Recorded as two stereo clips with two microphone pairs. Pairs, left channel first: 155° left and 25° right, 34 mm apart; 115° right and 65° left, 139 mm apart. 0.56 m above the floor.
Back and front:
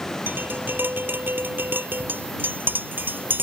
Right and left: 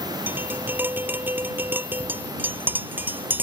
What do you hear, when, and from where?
0.3 s tapping: 10° right